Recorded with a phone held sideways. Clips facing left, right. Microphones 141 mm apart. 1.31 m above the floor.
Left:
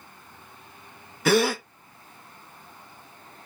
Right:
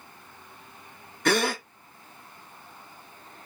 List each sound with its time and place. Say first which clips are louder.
1.2 s a gasp: left 4 dB; 5° left (ahead or behind), 0.9 m